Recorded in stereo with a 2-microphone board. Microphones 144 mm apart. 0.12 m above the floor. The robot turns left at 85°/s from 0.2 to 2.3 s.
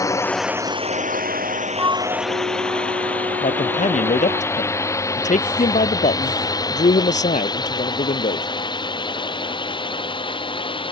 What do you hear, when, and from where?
0.0 s a drone: 20° left (ahead or behind); by 10.9 s 35° left (ahead or behind)
1.8 s a flute: 20° right; by 4.4 s 65° right
3.4 s a man speaking: 55° left (ahead or behind)